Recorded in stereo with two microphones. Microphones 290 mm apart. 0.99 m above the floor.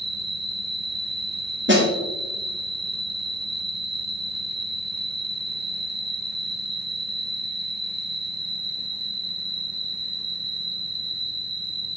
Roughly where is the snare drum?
Right.